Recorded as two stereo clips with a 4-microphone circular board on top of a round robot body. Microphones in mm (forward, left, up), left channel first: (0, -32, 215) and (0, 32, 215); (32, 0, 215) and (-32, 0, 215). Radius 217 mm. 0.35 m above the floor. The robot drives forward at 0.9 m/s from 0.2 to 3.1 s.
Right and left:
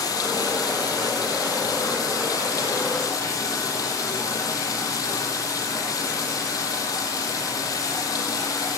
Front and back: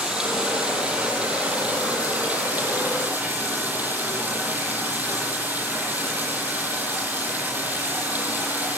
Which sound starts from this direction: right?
Running water, at 0.0 s.